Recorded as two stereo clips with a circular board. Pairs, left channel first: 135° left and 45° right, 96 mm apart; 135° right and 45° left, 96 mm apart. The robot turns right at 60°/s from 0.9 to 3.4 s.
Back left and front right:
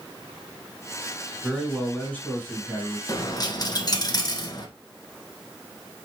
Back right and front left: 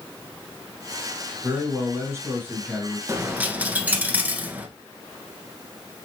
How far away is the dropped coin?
About 0.9 m.